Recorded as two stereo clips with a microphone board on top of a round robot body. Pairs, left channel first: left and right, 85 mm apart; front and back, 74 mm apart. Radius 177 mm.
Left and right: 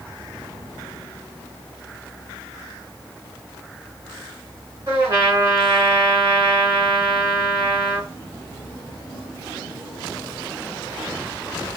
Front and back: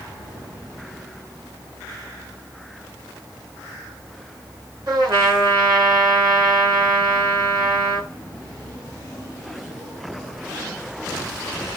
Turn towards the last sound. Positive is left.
turn(degrees=-150)